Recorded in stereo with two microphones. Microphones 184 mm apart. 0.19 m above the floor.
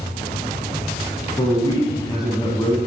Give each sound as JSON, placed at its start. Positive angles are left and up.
{"t": 1.4, "sound": "a man speaking", "side_deg": 25, "distance_m": 1.1}